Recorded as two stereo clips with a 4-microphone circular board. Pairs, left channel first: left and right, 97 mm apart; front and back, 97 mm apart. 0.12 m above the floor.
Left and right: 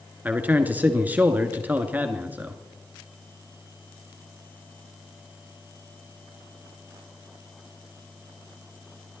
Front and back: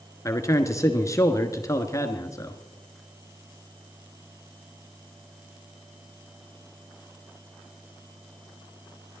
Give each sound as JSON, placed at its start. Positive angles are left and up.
{"t": 0.2, "sound": "a man speaking", "azimuth_deg": -30, "distance_m": 1.3}